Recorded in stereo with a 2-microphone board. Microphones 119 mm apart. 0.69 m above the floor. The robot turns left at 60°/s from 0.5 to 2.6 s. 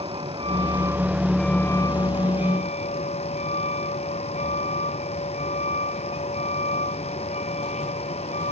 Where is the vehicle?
130° right; by 8.5 s 105° left.